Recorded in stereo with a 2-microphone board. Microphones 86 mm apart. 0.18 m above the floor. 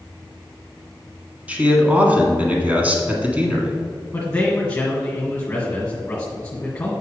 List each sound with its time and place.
1.5 s a man speaking: 15° right (ahead or behind), 1.5 m
4.1 s a man speaking: 15° left (ahead or behind), 1.8 m